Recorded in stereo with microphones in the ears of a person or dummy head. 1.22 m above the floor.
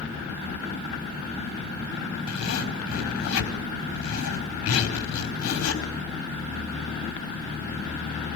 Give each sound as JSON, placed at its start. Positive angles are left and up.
{"t": 2.3, "sound": "a zipper", "side_deg": 80, "distance_m": 4.5}